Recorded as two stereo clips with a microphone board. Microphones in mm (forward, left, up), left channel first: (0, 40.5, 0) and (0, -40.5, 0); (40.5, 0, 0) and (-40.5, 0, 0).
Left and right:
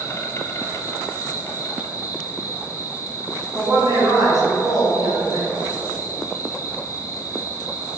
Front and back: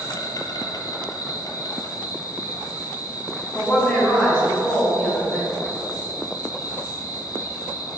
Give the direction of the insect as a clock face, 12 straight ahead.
11 o'clock.